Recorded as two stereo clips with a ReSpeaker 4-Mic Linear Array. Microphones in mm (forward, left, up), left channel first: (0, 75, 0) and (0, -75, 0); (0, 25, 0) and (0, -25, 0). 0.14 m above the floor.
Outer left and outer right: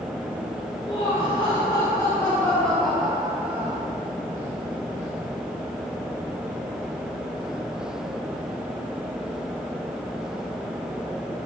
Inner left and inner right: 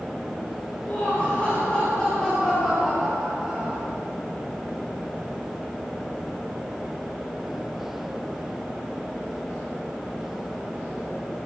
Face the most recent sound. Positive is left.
turn(degrees=-20)  # may be behind; listen again after turning